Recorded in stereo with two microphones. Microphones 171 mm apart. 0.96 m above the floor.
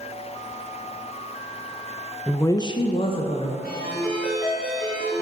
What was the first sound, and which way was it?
A woman speaking, 5° left (ahead or behind).